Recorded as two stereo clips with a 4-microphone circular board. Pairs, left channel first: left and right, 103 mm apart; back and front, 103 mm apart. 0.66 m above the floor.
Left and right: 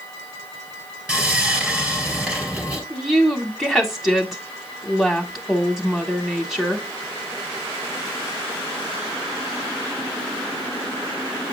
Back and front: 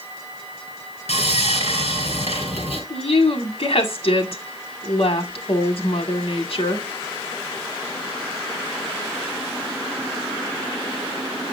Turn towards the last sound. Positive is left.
turn(degrees=180)